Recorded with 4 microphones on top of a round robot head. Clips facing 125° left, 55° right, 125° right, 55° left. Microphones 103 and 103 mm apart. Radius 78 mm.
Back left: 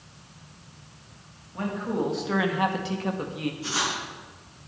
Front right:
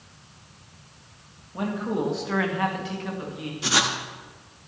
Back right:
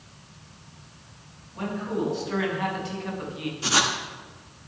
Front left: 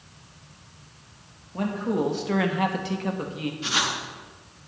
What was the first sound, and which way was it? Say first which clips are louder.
A man speaking: front right 1 dB, front left 3 dB; 15° left.